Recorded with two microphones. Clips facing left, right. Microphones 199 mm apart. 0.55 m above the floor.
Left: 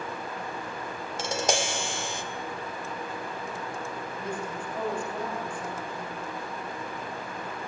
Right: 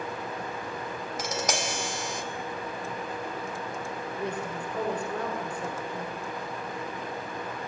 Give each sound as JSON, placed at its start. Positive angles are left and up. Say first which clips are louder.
{"t": 1.2, "sound": "tapping", "louder": "left 4 dB", "side_deg": 30, "distance_m": 2.0}
{"t": 4.2, "sound": "a woman speaking", "louder": "right 2 dB", "side_deg": -70, "distance_m": 8.5}